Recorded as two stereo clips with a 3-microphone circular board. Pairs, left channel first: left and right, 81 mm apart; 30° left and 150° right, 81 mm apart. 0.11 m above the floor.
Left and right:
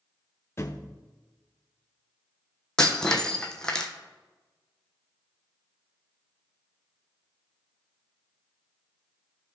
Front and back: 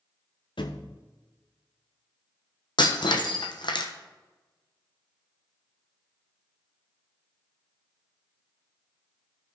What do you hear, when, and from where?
0.6 s a thud: 35° left, 0.9 m
2.8 s breaking glass: 10° left, 1.2 m